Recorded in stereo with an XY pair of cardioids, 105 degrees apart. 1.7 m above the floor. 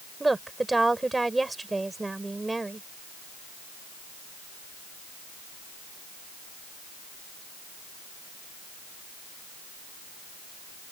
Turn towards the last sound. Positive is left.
turn(degrees=-15)